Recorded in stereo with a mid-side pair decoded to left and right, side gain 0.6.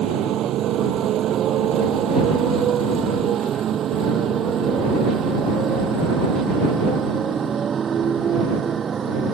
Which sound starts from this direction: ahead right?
A motorcycle, at 0.0 s.